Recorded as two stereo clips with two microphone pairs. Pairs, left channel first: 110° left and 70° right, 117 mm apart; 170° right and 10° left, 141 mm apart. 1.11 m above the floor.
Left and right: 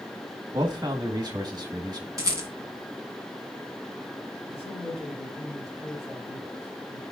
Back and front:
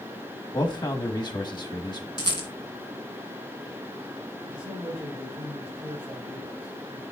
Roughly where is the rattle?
Behind right.